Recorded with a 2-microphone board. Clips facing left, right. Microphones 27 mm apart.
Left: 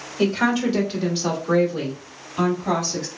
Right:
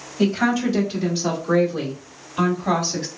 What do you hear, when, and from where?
0.2 s a woman speaking: 40° left (ahead or behind), 1.8 m; by 3.1 s 20° right (ahead or behind), 1.4 m